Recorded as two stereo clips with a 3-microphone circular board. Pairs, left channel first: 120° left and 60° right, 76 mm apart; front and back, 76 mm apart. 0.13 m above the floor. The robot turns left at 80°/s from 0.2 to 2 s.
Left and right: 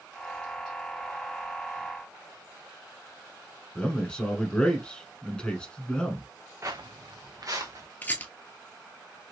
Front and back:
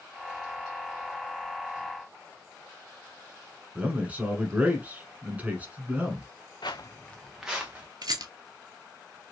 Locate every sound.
3.8 s a man speaking: 165° left, 1.1 m
6.6 s footsteps: 10° right, 0.6 m; by 7.9 s 105° right, 1.5 m
8.0 s a rattle: 175° right, 0.6 m